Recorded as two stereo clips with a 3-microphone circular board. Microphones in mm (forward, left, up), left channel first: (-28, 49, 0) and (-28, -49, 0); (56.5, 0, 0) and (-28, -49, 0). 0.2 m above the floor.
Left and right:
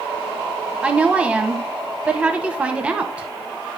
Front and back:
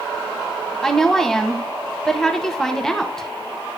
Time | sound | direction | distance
0.8 | a woman speaking | 40° right | 1.2 m